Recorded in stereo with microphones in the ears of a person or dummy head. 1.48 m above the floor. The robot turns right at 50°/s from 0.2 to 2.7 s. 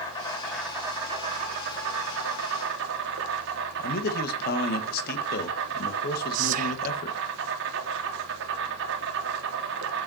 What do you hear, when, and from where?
0.0 s an insect: 160° left, 3.5 m; by 10.1 s 75° right, 3.5 m
3.8 s a man speaking: 60° left (ahead or behind), 2 m
6.3 s whispering: 50° right (ahead or behind), 1.1 m